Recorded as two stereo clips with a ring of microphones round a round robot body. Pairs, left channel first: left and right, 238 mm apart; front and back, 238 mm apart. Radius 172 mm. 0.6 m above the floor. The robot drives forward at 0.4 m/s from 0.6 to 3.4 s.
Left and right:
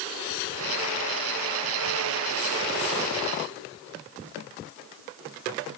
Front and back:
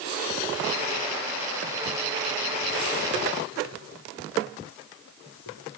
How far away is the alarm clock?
I don't hear an alarm clock.